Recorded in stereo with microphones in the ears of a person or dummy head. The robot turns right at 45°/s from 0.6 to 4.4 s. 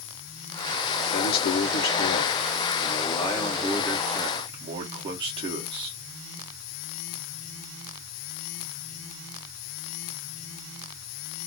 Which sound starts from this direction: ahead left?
A man speaking, at 1.1 s.